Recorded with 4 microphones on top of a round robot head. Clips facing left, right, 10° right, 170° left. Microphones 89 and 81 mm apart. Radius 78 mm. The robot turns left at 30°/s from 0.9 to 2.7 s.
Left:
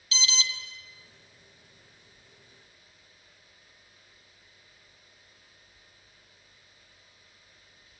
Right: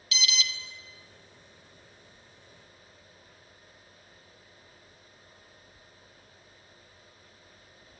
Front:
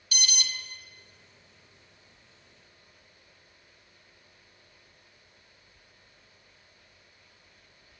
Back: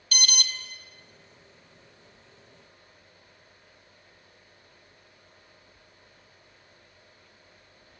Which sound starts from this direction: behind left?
An alarm, at 0.1 s.